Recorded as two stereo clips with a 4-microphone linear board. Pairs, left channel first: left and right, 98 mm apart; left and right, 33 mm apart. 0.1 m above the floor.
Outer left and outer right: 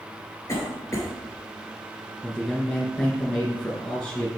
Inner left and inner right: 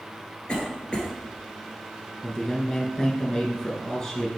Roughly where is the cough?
Left.